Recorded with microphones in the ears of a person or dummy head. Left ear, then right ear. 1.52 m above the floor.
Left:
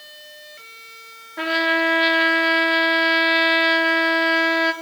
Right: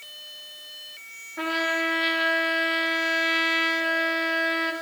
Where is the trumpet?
20° left (ahead or behind), 2.5 m.